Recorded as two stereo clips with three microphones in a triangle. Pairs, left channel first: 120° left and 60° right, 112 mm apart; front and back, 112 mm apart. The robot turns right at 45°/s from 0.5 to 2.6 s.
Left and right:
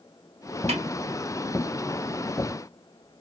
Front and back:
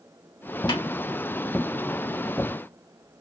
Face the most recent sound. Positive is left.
turn(degrees=40)